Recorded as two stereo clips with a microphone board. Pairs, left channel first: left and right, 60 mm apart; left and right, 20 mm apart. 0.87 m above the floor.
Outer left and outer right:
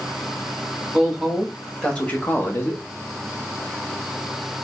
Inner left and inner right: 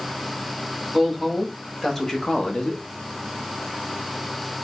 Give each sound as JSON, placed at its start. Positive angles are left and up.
{"t": 0.9, "sound": "a woman speaking", "side_deg": -5, "distance_m": 1.7}